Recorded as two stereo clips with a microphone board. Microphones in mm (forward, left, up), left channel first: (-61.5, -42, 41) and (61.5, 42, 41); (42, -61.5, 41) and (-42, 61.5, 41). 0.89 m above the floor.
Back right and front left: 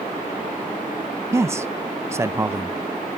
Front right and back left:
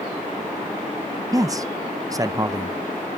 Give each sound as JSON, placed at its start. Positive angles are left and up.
{"t": 1.3, "sound": "a man speaking", "azimuth_deg": 85, "distance_m": 0.6}